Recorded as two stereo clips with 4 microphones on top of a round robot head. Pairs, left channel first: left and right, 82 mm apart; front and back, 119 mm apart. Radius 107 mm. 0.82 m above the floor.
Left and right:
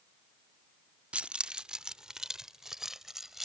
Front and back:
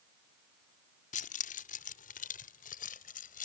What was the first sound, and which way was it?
Keys jangling, 15° right.